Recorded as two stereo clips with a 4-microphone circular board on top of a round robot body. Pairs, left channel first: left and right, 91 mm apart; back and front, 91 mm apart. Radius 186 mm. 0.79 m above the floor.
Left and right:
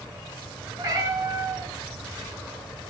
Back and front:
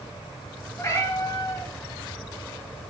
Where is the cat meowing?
125° right, 3.5 m.